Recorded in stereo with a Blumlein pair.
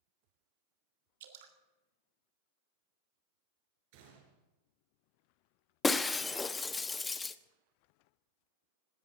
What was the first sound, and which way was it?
Dripping, 55° right.